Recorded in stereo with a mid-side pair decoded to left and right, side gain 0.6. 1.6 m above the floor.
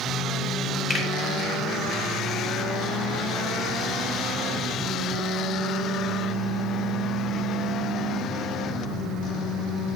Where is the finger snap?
25° left, 3 m.